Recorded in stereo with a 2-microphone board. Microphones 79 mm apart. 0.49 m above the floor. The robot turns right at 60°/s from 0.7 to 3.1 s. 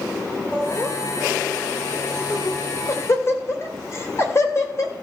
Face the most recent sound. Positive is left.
turn(degrees=35)  # may be behind; listen again after turning